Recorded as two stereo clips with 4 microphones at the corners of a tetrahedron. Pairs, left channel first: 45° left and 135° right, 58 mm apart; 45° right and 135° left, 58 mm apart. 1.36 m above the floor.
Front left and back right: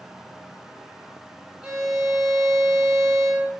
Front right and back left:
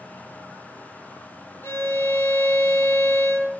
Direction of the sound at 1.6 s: 65° right.